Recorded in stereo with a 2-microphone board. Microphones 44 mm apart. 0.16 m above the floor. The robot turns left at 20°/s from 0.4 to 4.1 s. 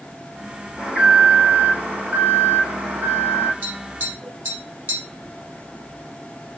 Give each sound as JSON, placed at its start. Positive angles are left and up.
{"t": 0.8, "sound": "an alarm", "azimuth_deg": -20, "distance_m": 5.5}
{"t": 3.6, "sound": "tapping", "side_deg": -50, "distance_m": 5.0}